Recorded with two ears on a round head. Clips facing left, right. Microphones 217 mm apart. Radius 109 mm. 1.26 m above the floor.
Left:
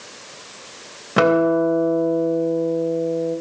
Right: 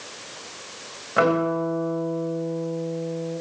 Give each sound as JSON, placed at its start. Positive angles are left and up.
{"t": 1.2, "sound": "a guitar", "side_deg": 50, "distance_m": 3.0}